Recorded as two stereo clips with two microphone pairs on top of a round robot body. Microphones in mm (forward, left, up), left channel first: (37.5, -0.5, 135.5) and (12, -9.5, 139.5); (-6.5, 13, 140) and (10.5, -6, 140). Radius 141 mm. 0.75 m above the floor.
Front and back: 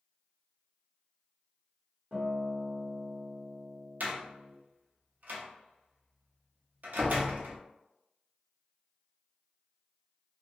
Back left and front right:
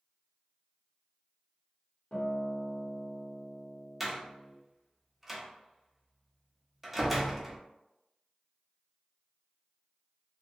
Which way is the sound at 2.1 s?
170° left.